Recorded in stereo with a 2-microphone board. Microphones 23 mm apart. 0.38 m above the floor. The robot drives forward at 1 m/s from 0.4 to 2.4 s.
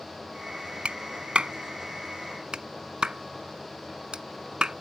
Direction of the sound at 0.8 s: 55° right (ahead or behind).